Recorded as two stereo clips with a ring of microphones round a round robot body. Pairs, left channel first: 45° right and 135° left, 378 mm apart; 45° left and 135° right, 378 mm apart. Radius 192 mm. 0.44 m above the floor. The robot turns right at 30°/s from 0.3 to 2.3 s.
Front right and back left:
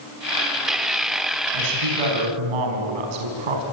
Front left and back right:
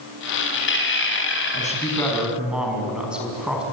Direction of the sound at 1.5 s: 115° left.